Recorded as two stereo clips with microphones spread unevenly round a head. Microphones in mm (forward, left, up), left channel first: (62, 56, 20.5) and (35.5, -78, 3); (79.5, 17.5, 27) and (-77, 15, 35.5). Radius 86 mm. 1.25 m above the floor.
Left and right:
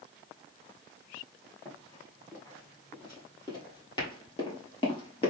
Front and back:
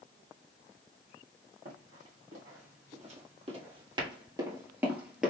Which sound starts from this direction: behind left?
Running footsteps, at 1.6 s.